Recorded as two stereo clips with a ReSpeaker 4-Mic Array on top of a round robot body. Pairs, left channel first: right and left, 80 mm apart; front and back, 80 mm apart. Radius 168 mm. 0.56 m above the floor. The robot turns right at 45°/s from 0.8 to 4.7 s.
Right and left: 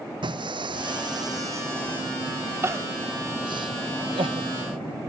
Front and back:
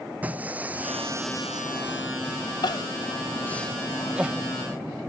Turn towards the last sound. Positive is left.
turn(degrees=125)